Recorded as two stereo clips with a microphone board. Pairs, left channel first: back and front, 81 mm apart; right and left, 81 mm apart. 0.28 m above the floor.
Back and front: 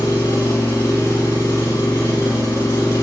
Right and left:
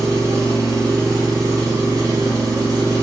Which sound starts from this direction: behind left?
An engine running, at 0.0 s.